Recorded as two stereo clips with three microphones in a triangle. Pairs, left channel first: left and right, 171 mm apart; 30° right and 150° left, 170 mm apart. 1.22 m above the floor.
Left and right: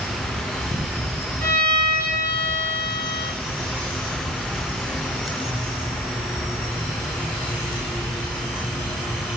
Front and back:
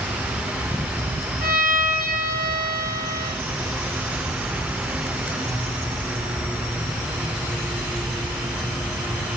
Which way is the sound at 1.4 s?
170° left.